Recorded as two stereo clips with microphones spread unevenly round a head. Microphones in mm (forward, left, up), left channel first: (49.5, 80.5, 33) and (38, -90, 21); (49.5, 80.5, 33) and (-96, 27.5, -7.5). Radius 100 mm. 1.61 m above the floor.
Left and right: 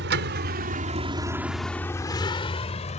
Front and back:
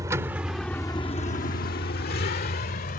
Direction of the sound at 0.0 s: 80° right.